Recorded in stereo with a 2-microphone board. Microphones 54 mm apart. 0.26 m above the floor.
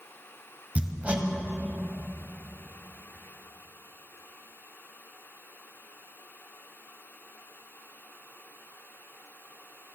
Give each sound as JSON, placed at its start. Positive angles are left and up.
{"t": 0.8, "sound": "hammering", "side_deg": -25, "distance_m": 0.8}